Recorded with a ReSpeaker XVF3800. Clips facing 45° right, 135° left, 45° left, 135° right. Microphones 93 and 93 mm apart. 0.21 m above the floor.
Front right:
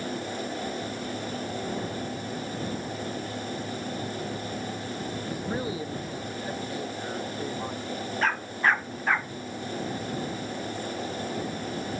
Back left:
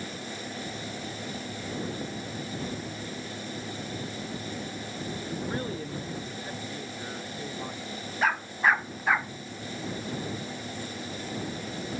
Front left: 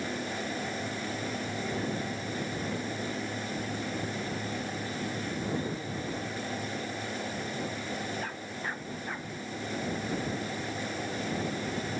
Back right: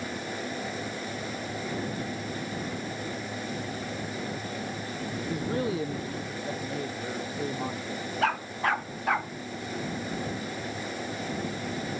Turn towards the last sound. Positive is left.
turn(degrees=-140)